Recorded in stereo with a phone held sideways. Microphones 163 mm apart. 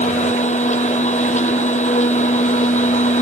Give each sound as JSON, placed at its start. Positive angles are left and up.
{"t": 0.0, "sound": "a machine running", "side_deg": 45}